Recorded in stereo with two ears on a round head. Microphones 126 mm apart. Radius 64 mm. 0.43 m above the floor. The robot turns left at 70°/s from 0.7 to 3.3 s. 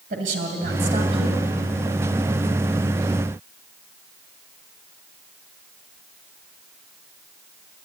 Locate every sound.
0.1 s a woman speaking: 100° right, 2.5 m; by 1.4 s 150° right, 2.5 m